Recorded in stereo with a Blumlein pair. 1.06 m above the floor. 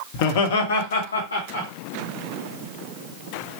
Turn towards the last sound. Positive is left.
turn(degrees=75)